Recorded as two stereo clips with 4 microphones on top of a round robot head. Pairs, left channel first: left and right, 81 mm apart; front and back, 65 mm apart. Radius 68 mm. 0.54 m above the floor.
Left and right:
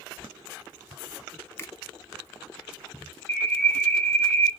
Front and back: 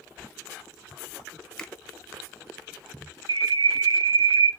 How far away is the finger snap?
About 0.7 m.